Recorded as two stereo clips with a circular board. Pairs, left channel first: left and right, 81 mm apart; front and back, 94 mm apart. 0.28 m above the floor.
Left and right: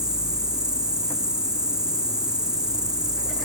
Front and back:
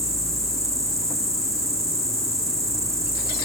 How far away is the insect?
About 1.0 m.